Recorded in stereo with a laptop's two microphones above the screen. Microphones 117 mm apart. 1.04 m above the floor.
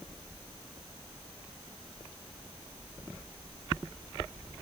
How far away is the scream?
I don't hear a scream.